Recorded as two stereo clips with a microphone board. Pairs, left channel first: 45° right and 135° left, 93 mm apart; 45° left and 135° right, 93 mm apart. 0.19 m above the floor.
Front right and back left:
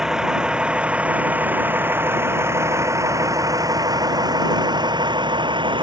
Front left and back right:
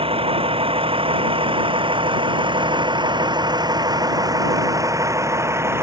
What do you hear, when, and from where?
0.0 s a vehicle: 140° right; by 5.8 s 165° left